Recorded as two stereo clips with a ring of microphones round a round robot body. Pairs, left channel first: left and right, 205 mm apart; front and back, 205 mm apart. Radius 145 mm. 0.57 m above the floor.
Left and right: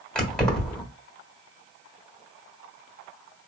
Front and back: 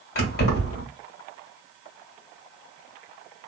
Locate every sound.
0.1 s keys jangling: 5° left, 1.4 m